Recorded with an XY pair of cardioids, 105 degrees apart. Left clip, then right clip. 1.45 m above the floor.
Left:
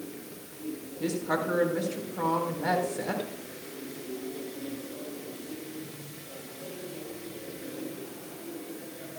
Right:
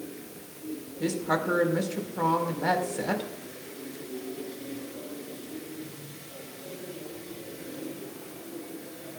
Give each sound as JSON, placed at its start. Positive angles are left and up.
{"t": 1.0, "sound": "a woman speaking", "azimuth_deg": -25, "distance_m": 4.5}